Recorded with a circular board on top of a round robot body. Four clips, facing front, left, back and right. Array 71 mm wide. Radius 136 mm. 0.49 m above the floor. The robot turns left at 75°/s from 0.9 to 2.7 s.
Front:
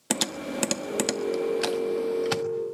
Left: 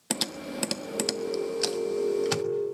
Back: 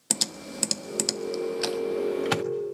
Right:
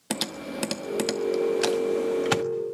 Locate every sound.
0.1 s typing on a keyboard: 10° right, 1.5 m; by 2.4 s 125° right, 1.5 m